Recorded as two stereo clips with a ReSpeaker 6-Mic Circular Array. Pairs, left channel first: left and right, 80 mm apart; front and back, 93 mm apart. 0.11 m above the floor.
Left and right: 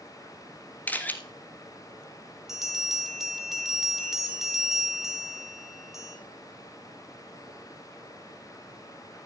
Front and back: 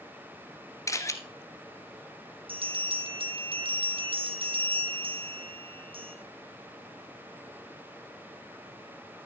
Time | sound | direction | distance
0.9 | a camera shutter | 35° left | 1.5 m
2.5 | a bell | 175° right | 1.8 m